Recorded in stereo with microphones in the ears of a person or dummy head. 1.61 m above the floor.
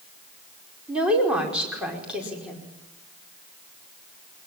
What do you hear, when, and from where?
0.9 s a woman speaking: 10° right (ahead or behind), 5 m